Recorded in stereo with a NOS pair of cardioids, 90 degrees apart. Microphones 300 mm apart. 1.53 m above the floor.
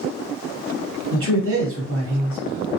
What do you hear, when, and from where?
1.1 s a man speaking: 50° right, 1.5 m